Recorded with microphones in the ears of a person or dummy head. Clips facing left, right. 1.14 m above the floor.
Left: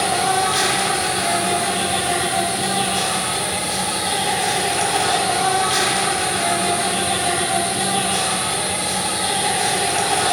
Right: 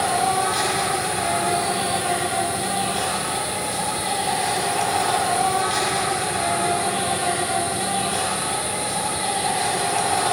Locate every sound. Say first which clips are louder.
0.0 s an insect: left 2 dB; 5° left (ahead or behind), 6 m